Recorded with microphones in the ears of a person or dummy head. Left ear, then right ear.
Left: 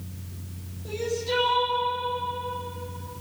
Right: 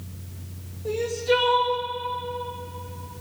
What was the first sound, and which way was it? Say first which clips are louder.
Crying: right 5 dB; 75° right (ahead or behind).